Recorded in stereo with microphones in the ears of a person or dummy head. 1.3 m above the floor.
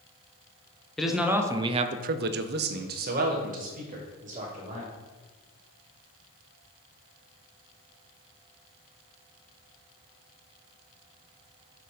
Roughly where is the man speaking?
Centre.